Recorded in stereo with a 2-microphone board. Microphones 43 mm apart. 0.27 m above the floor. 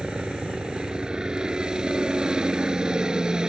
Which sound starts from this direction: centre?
A helicopter, at 0.0 s.